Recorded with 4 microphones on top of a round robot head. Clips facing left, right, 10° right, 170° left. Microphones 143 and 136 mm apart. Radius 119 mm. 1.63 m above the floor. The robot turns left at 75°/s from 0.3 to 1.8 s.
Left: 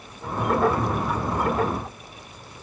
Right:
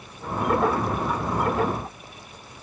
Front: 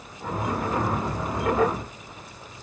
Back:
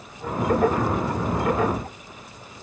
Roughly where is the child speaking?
I don't hear a child speaking.